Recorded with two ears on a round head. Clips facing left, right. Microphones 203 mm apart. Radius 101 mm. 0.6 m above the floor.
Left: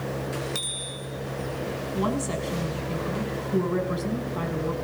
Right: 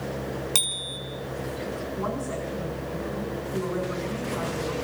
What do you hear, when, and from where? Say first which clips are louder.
0.6 s a bicycle bell: left 1 dB; 70° right (ahead or behind), 4.5 m
1.9 s a woman speaking: left 6 dB; 50° left (ahead or behind), 6 m